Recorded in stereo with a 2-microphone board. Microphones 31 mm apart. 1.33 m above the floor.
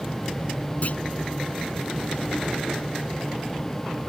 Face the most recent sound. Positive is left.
turn(degrees=50)  # may be behind; listen again after turning